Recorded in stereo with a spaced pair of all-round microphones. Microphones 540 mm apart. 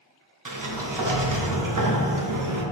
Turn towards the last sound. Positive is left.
turn(degrees=-40)  # may be behind; listen again after turning